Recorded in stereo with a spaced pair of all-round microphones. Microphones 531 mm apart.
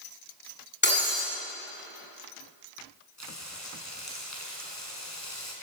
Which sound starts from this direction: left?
Frying, at 3.2 s.